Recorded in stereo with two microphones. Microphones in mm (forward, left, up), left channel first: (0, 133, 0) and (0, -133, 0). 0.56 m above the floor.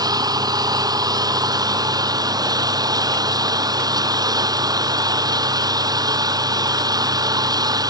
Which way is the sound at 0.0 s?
15° right (ahead or behind).